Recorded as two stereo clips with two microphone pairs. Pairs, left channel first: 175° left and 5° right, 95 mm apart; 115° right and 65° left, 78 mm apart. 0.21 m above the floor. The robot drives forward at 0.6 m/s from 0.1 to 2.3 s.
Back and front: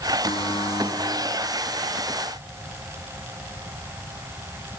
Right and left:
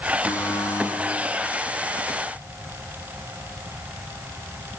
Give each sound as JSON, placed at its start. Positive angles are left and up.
{"t": 0.3, "sound": "a buzzer", "azimuth_deg": -165, "distance_m": 2.5}